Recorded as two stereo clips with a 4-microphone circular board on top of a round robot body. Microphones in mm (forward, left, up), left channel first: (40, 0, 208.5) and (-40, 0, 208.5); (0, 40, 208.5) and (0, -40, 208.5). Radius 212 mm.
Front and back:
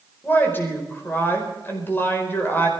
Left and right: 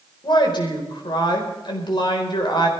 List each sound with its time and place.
0.2 s a woman speaking: 65° left, 4.5 m